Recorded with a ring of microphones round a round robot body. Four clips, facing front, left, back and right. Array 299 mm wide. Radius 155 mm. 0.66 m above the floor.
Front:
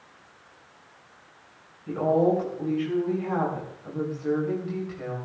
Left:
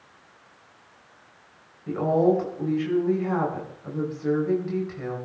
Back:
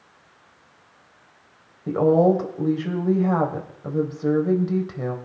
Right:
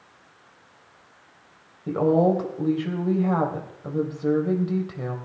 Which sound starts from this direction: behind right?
A woman speaking, at 1.9 s.